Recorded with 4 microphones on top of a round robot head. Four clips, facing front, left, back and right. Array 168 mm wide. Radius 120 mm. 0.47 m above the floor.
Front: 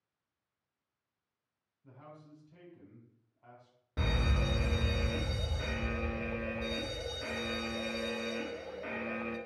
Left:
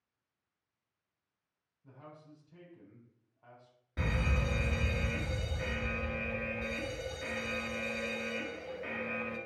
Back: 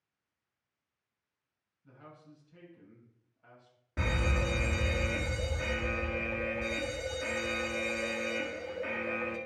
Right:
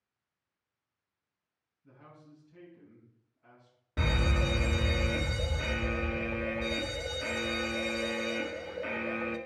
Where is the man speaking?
45° left, 4.5 m.